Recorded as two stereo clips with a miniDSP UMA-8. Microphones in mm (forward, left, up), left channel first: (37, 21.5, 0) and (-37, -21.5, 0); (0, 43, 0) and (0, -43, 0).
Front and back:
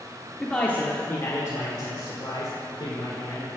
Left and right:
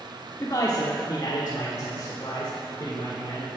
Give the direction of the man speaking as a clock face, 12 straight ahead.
8 o'clock.